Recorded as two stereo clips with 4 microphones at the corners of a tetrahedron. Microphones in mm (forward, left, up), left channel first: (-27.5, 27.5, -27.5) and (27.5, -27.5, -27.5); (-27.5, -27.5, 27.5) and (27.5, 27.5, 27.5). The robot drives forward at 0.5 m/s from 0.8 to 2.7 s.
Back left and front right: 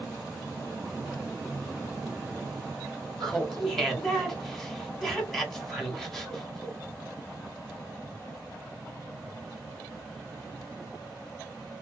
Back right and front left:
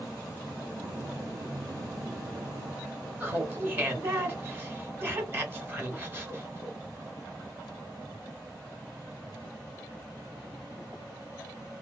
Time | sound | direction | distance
3.2 | laughter | 55° left | 1.0 m